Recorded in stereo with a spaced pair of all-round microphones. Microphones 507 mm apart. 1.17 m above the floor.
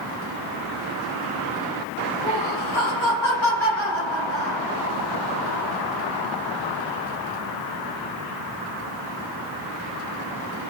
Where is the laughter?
50° left (ahead or behind), 1.6 m.